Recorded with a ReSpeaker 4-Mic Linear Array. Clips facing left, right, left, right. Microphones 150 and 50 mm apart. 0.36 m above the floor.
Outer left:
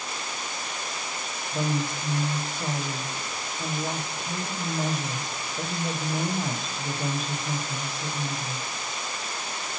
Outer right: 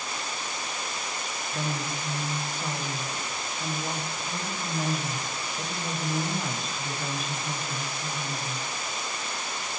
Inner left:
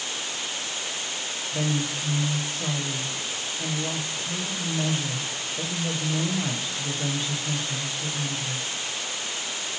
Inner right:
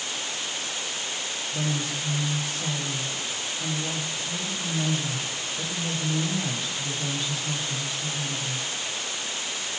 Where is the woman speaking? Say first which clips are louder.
Outer left 5 dB, inner left 3 dB; 35° left (ahead or behind), 1.7 m.